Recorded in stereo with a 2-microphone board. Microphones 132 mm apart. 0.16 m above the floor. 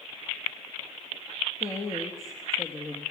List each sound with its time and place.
1.6 s a woman speaking: 25° left (ahead or behind), 4 m